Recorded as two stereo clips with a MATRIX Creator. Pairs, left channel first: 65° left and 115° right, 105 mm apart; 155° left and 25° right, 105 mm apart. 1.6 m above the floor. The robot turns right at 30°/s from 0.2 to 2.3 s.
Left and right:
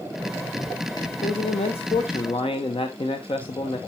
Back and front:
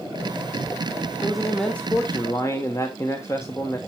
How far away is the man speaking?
About 1.0 m.